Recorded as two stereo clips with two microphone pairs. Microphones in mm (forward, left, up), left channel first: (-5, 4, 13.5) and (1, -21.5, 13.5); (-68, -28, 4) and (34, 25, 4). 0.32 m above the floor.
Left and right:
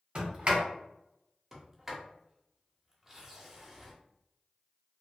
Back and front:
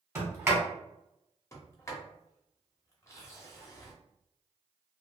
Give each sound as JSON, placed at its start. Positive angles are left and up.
{"t": 0.1, "sound": "a sliding door", "azimuth_deg": -35, "distance_m": 1.4}
{"t": 1.5, "sound": "a sliding door", "azimuth_deg": -145, "distance_m": 0.8}